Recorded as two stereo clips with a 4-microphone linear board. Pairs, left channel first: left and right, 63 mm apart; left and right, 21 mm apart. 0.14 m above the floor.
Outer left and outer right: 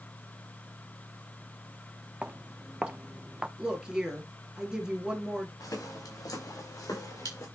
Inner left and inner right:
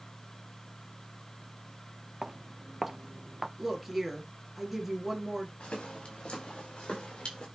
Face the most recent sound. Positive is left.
turn(degrees=55)  # may be behind; listen again after turning